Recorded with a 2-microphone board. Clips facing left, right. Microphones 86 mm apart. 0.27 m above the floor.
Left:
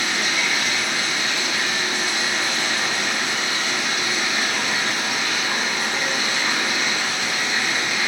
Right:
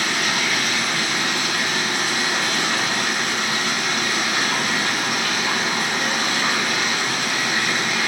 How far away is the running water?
About 1.2 m.